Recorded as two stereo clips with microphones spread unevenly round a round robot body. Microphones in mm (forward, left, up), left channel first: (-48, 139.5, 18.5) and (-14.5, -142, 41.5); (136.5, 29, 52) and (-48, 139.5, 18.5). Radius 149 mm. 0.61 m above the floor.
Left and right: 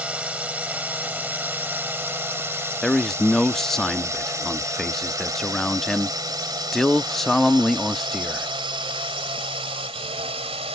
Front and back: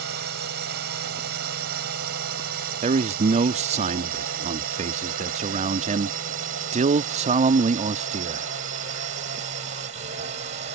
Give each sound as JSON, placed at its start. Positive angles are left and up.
{"t": 0.0, "sound": "a drone", "azimuth_deg": -170}
{"t": 2.8, "sound": "a man speaking", "azimuth_deg": 180}